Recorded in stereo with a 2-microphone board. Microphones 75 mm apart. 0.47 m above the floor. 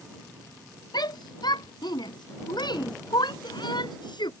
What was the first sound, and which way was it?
A shout, 70° left (ahead or behind).